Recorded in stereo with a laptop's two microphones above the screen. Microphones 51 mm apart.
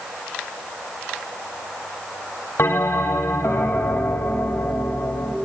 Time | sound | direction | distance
2.6 | a bell | 65° left (ahead or behind) | 0.9 m